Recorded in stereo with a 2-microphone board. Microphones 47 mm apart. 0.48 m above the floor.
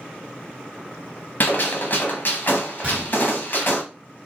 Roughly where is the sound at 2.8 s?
Right.